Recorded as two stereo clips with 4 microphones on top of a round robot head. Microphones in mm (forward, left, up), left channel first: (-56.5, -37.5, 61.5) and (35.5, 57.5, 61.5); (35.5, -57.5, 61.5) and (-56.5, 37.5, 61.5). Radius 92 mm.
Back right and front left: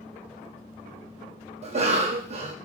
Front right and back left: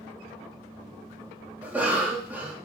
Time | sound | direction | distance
1.6 | a cough | 60° left | 0.6 m